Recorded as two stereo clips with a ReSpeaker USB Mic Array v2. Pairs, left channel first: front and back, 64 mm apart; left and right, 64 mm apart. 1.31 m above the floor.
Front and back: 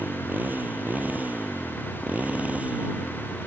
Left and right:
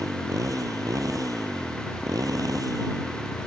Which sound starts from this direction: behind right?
A motorcycle, at 0.0 s.